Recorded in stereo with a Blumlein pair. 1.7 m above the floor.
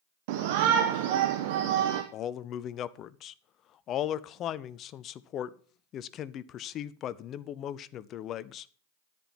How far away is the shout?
About 1.0 m.